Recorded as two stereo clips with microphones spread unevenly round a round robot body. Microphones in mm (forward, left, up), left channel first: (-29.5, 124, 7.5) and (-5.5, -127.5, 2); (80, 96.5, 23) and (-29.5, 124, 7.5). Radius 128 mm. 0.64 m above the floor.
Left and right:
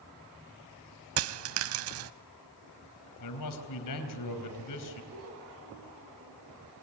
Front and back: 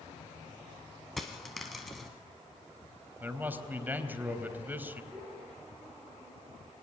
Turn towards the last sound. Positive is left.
turn(degrees=-115)